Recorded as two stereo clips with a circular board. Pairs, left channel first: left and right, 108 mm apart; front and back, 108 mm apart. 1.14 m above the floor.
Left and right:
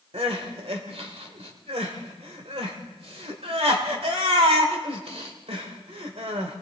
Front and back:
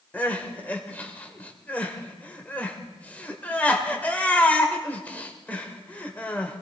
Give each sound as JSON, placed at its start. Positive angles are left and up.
{"t": 0.1, "sound": "crying", "azimuth_deg": -75, "distance_m": 1.7}